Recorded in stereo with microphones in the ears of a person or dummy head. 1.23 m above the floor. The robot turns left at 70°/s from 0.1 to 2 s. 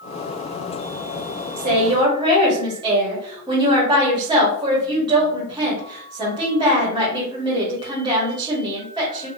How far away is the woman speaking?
About 1.1 m.